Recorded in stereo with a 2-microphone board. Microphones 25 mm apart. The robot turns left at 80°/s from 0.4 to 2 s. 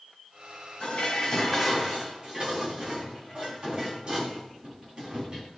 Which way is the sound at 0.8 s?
60° left.